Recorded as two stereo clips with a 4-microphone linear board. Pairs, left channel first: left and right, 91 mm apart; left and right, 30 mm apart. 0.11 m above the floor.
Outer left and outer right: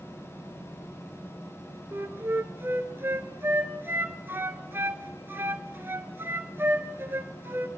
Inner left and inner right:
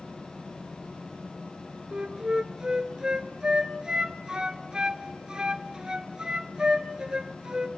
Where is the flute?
25° right (ahead or behind), 1.3 m.